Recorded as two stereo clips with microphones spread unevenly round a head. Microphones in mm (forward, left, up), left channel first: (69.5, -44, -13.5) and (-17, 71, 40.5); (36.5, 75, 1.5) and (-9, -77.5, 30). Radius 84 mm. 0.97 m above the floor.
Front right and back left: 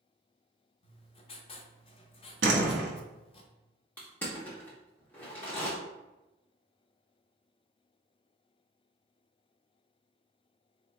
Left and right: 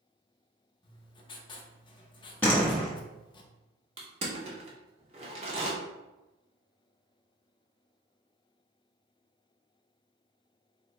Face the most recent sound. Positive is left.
turn(degrees=-145)